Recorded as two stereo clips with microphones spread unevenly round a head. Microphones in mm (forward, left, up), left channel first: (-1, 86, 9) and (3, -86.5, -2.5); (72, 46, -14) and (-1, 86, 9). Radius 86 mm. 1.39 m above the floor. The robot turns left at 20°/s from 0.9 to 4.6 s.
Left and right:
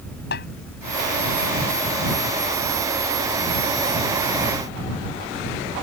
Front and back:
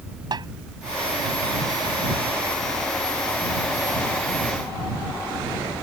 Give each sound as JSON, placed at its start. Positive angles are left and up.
{"t": 0.3, "sound": "a snare drum", "azimuth_deg": 125}